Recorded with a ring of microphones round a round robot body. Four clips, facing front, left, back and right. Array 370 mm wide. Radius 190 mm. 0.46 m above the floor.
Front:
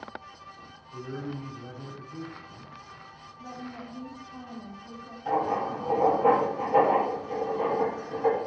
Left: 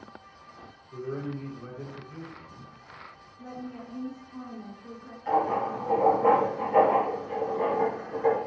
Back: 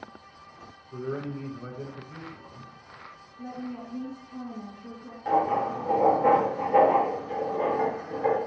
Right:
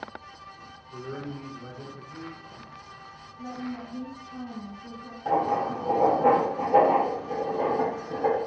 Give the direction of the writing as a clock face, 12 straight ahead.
3 o'clock.